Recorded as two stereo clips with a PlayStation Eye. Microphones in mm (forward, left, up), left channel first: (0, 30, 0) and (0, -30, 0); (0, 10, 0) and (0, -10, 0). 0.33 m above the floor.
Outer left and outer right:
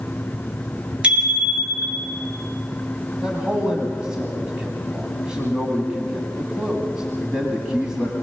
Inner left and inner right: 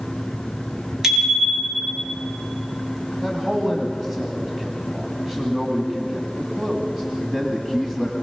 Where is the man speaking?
15° right (ahead or behind), 2 m.